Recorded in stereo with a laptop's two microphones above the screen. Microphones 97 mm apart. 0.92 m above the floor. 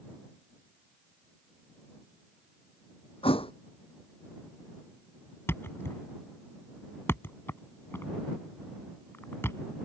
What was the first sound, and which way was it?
A thud, 75° left (ahead or behind).